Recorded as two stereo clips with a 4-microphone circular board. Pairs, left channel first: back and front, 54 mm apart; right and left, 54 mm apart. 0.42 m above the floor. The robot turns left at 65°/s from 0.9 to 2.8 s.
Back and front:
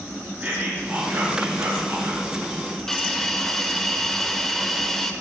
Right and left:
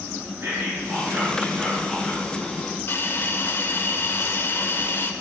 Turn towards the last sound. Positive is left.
turn(degrees=-100)